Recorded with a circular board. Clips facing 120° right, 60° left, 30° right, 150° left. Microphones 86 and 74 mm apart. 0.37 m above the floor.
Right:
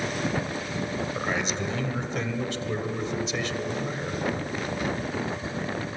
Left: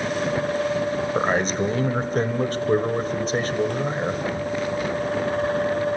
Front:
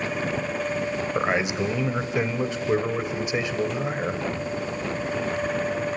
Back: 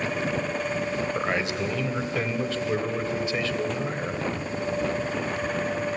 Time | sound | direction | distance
1.1 | a man speaking | 35° left | 1.5 m